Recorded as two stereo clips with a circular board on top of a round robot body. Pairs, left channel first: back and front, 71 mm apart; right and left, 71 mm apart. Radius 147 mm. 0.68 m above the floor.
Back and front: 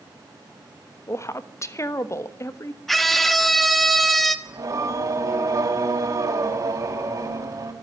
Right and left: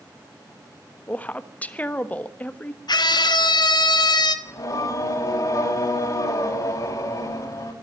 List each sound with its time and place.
1.1 s a woman speaking: 150° right, 1.5 m
2.9 s a scream: 95° right, 1.7 m
4.5 s singing: 45° right, 5 m